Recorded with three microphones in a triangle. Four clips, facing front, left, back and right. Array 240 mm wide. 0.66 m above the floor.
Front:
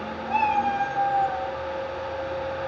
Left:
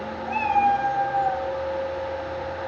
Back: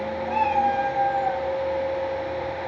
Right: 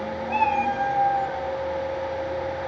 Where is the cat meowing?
120° left, 1.2 m; by 1.4 s 145° left, 1.3 m.